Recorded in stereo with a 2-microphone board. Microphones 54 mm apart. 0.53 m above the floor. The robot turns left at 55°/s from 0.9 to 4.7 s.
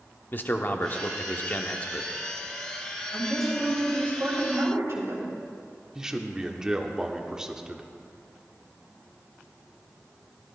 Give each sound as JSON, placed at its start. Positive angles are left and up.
{"t": 0.3, "sound": "a man speaking", "azimuth_deg": 95, "distance_m": 0.8}
{"t": 3.1, "sound": "a woman speaking", "azimuth_deg": 15, "distance_m": 3.0}
{"t": 6.0, "sound": "a man speaking", "side_deg": -15, "distance_m": 0.9}